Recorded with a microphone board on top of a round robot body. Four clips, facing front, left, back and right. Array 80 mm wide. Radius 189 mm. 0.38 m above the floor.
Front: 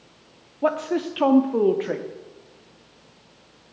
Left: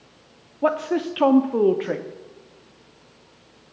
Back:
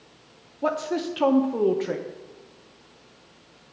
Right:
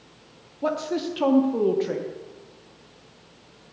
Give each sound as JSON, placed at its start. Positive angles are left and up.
{"t": 0.6, "sound": "a woman speaking", "azimuth_deg": 70, "distance_m": 0.9}